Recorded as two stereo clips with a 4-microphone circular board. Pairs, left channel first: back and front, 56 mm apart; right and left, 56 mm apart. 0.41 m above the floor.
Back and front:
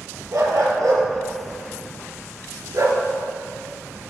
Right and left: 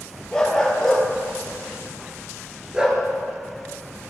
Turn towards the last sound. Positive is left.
turn(degrees=20)